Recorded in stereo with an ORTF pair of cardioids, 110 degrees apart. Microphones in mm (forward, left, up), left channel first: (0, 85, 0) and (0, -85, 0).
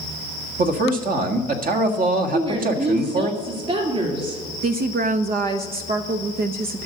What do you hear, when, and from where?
0.6 s a man speaking: 55° right, 1.6 m
2.3 s a woman speaking: 35° right, 3 m
4.6 s a woman speaking: 65° right, 0.7 m